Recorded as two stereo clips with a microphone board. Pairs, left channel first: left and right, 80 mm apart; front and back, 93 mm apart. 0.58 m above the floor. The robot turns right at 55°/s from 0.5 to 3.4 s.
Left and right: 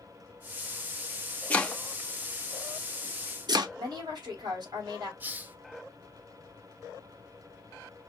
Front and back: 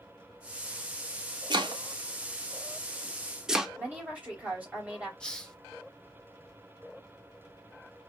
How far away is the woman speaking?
About 2.5 m.